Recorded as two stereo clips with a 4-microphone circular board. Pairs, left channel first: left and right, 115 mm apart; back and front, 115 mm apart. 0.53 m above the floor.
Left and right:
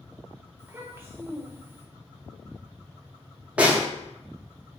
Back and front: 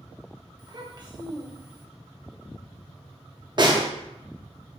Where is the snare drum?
15° right, 0.6 m.